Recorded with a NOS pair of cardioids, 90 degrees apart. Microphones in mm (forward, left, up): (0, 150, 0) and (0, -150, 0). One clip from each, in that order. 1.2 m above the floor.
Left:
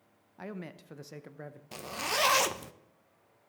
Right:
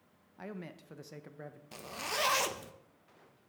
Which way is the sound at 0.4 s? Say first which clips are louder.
Left 3 dB; 10° left.